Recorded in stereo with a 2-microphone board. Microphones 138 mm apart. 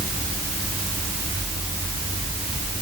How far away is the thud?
No thud in this recording.